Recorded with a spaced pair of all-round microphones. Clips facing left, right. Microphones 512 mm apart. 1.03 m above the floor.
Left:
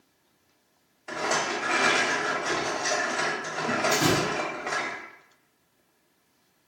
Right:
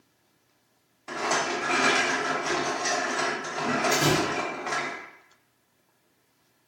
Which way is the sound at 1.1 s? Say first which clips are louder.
Right 1 dB; 30° right (ahead or behind).